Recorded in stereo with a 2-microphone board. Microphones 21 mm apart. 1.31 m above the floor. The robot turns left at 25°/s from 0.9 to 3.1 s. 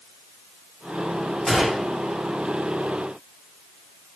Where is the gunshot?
5° right (ahead or behind), 2 m; by 1.9 s 15° right (ahead or behind), 2 m.